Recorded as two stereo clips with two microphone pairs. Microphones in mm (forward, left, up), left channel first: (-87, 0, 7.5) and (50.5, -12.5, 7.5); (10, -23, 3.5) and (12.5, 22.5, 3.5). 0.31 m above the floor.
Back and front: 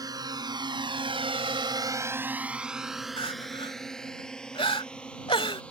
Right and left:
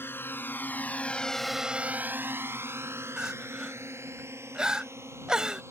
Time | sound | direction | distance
0.0 | a drone | 65° right | ?
3.2 | crying | 155° left | ?